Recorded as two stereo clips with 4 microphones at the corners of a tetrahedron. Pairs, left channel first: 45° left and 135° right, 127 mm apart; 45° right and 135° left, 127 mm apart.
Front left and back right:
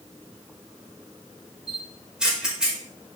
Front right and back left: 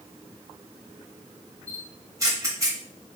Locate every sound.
1.7 s a camera shutter: 150° left, 0.8 m